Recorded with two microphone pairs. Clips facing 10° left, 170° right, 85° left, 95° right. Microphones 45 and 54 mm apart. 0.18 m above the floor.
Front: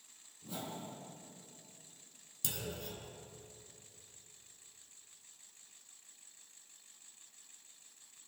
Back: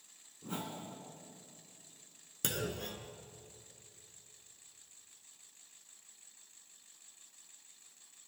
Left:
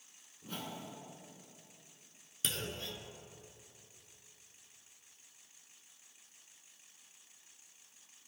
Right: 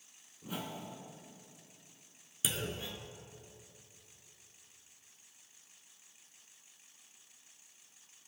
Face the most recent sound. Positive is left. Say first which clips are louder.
# back 5 dB, right 2 dB
turn(degrees=-175)